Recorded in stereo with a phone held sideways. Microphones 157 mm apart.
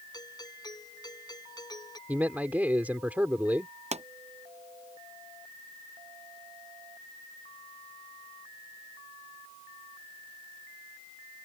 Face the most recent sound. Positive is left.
turn(degrees=-45)  # may be behind; listen again after turning